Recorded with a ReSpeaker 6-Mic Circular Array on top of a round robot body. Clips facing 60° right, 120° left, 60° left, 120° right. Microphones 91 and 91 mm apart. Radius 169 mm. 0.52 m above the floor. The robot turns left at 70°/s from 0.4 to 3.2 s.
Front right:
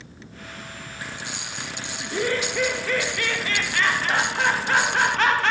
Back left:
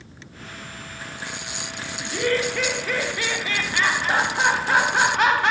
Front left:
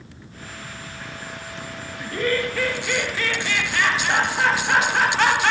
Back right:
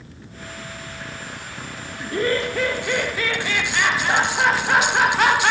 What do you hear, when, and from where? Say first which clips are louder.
2.0 s laughter: back left 2 dB, back right 2 dB; 100° right, 0.8 m; by 5.5 s 175° left, 0.8 m